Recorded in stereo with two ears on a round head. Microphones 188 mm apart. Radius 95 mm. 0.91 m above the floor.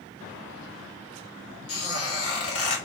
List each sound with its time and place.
1.7 s a squeak: 75° left (ahead or behind), 1.3 m